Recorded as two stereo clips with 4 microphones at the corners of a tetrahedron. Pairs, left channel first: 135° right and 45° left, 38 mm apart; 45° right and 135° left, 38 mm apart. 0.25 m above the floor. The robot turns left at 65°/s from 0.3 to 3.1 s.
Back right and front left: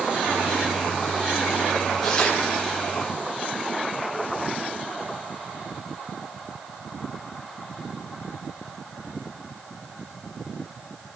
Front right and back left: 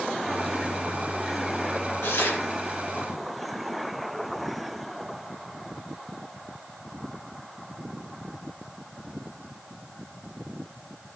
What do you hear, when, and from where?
2.0 s tearing paper: 50° right, 4.5 m; by 2.4 s 75° right, 4.5 m